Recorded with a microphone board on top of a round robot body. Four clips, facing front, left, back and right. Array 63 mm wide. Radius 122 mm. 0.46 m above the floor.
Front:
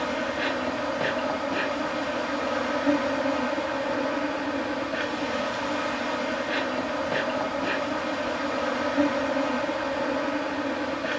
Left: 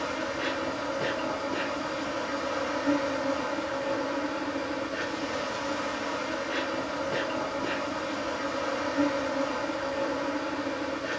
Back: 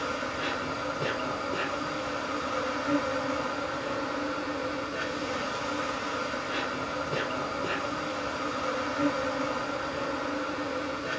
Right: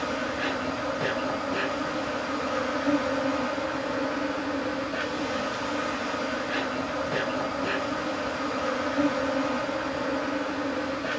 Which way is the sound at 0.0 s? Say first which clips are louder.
Right 2 dB, front 4 dB; 15° right.